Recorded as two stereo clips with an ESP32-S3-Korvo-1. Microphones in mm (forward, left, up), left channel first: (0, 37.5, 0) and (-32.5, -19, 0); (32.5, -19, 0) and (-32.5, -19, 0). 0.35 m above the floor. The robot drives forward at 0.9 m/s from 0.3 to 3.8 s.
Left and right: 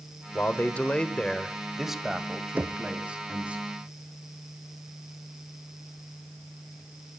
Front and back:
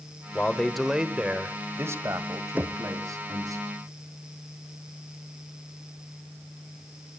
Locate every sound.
0.3 s a man speaking: 45° left, 1.1 m; by 3.6 s 170° left, 2.5 m
2.6 s knocking: 150° right, 0.6 m; by 2.8 s 160° right, 0.7 m